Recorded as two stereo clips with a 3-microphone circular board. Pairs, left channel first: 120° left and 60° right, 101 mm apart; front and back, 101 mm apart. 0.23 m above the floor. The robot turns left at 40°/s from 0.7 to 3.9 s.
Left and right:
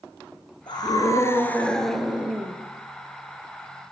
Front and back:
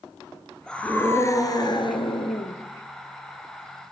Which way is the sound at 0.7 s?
80° left.